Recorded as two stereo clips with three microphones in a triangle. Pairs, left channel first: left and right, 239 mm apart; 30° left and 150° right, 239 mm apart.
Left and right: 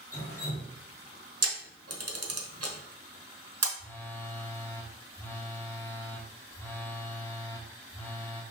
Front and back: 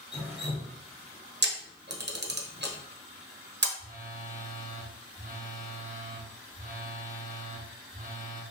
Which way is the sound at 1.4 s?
100° right.